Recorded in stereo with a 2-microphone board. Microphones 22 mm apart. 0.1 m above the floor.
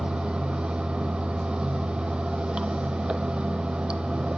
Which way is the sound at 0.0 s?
50° right (ahead or behind).